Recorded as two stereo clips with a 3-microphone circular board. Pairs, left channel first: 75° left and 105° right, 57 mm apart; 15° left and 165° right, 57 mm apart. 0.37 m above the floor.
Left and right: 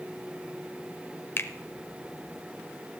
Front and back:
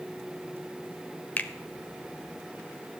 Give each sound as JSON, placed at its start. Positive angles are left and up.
{"t": 1.4, "sound": "a finger snap", "azimuth_deg": 60, "distance_m": 0.9}